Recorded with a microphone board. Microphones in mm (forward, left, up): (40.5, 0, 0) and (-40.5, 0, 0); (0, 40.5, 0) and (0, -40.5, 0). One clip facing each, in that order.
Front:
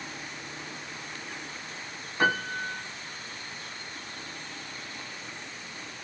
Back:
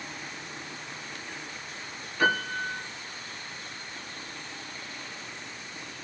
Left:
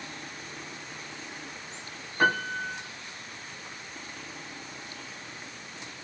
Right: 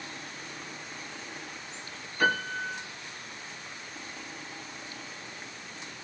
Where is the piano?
50° left, 1.8 m.